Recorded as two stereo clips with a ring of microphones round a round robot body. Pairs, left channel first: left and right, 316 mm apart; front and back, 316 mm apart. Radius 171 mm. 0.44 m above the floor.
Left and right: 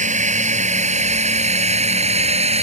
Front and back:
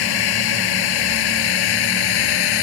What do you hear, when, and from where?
0.0 s a drone: 25° right; by 2.6 s 20° right